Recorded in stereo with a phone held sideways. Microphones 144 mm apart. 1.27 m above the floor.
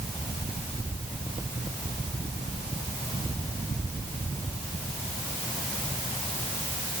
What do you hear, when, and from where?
Only background noise.